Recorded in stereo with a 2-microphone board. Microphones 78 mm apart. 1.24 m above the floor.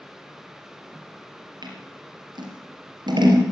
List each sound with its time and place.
1.6 s scissors: 75° right (ahead or behind), 3.5 m